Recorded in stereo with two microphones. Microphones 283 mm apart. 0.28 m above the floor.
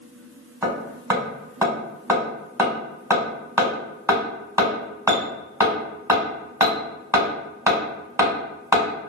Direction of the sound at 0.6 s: 10° right (ahead or behind).